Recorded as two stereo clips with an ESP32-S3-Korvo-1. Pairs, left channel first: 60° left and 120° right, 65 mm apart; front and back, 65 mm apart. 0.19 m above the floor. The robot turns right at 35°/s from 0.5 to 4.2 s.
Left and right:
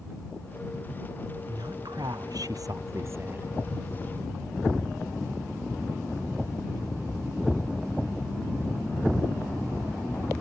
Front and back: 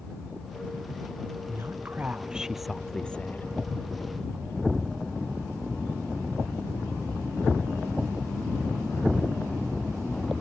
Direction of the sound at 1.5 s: 130° right.